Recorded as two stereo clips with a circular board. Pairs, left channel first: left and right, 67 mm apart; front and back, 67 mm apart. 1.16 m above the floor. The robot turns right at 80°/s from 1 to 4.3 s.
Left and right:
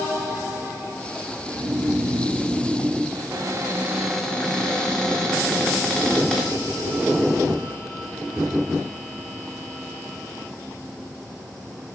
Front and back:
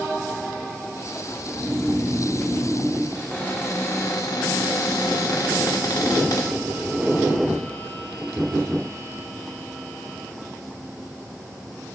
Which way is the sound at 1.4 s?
115° right.